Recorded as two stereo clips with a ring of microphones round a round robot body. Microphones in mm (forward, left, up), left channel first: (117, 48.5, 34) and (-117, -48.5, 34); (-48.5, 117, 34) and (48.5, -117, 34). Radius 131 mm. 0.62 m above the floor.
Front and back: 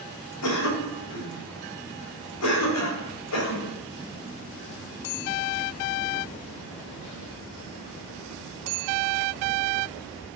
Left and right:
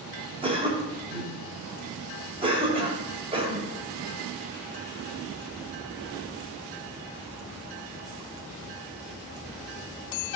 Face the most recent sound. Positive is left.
turn(degrees=0)